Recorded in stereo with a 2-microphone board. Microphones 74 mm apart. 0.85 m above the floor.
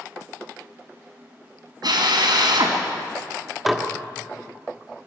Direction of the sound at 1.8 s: 75° right (ahead or behind).